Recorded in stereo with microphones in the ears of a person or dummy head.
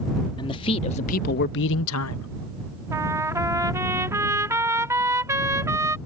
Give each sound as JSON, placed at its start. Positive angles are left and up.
{"t": 0.4, "sound": "a man speaking", "side_deg": 30}
{"t": 2.9, "sound": "a trumpet", "side_deg": -15}